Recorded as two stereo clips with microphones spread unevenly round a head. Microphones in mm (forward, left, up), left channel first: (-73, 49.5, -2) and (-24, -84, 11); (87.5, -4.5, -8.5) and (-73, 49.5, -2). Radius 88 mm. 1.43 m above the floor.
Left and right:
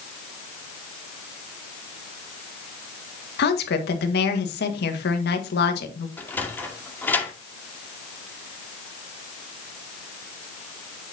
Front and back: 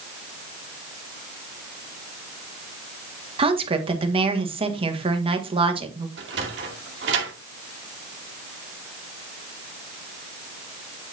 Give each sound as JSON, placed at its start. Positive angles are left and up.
{"t": 3.4, "sound": "a woman speaking", "azimuth_deg": 100, "distance_m": 1.7}
{"t": 6.2, "sound": "a sliding door", "azimuth_deg": -170, "distance_m": 2.0}